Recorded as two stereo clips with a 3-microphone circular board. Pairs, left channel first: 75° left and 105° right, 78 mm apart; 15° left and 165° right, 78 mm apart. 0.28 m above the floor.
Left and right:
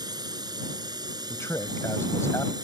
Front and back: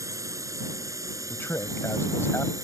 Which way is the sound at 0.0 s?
125° right.